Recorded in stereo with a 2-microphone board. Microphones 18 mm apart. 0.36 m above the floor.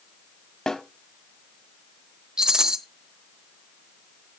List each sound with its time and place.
0.7 s a snare drum: 50° left (ahead or behind), 0.9 m
2.4 s a rattle: 45° right (ahead or behind), 1.0 m